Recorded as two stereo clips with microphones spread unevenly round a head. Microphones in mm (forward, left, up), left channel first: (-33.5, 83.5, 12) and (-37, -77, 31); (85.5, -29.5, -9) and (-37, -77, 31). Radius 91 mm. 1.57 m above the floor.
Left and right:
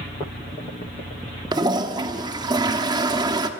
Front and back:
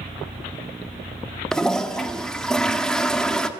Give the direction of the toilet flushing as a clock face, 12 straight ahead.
3 o'clock.